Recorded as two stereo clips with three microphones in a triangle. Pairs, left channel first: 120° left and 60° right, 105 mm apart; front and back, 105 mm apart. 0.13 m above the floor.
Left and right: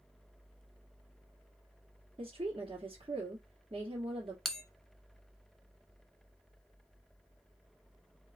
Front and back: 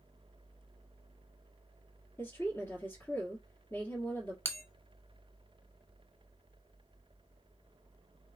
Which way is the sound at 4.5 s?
35° left.